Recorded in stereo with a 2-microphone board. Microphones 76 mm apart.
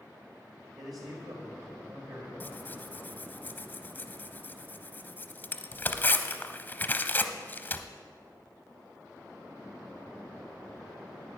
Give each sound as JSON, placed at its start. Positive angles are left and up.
{"t": 0.8, "sound": "a man speaking", "side_deg": -65, "distance_m": 1.7}
{"t": 2.4, "sound": "tearing paper", "side_deg": 25, "distance_m": 0.6}